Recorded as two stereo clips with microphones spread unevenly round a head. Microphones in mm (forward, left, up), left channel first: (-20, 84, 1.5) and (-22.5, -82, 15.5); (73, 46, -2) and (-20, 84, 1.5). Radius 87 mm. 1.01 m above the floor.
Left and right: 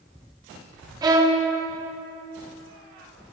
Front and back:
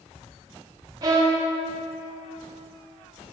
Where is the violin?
150° right, 0.6 m.